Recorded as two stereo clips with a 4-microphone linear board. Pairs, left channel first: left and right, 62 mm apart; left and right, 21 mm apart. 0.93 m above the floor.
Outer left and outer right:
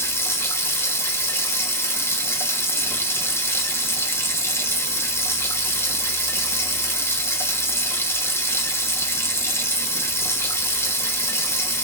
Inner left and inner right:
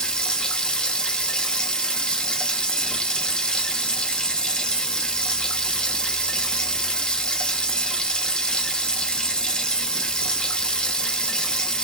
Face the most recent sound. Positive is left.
turn(degrees=45)  # may be behind; listen again after turning